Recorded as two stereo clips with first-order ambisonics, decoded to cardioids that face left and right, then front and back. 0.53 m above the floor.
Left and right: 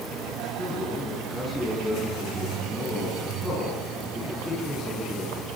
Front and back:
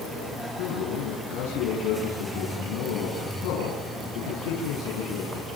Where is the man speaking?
10° left, 6.5 m.